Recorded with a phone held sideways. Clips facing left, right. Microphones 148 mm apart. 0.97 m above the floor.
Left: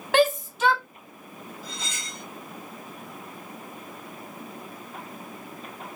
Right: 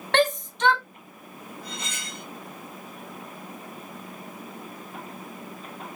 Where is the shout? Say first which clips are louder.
Left 2 dB; 5° left (ahead or behind), 0.6 m.